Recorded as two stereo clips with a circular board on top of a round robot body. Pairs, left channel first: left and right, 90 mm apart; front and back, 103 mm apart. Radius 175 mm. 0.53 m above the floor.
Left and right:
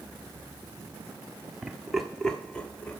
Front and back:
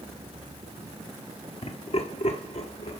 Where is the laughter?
10° right, 1.5 m; by 3.0 s 15° left, 2.5 m.